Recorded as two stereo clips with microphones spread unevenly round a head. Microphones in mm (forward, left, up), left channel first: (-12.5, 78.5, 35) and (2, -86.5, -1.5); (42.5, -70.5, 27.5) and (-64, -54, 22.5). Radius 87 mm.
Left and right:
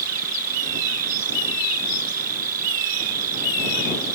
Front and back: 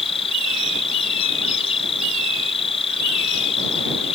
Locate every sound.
0.0 s an insect: 40° right